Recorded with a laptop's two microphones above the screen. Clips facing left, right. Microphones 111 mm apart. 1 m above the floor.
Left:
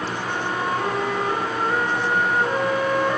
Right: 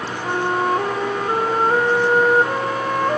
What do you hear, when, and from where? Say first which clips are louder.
0.2 s a flute: right 8 dB; 50° right (ahead or behind), 3 m